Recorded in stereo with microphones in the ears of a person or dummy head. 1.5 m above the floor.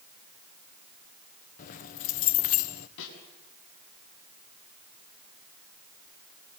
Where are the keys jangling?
45° left (ahead or behind), 0.8 m.